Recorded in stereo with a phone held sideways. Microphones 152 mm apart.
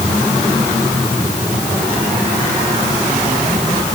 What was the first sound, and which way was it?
Only background noise.